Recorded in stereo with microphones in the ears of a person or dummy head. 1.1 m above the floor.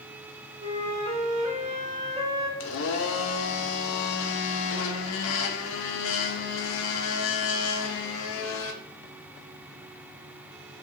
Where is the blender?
60° left (ahead or behind), 0.6 m.